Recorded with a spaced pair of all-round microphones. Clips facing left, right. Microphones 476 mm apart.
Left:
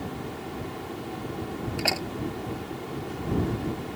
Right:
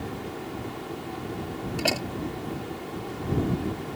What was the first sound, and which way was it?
A door slam, 50° right (ahead or behind).